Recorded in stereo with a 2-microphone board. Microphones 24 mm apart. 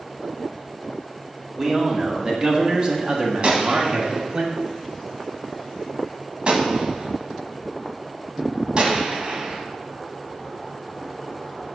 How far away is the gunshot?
About 1.3 m.